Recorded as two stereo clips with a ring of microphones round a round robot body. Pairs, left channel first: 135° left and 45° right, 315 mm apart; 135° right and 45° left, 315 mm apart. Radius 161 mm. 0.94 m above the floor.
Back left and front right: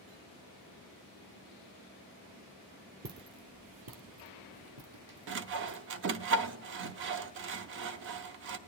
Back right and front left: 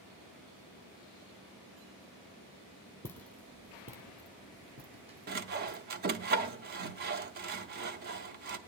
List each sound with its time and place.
3.0 s footsteps: 60° right, 1.0 m; by 5.8 s 20° right, 2.5 m
5.3 s sawing: 5° right, 0.6 m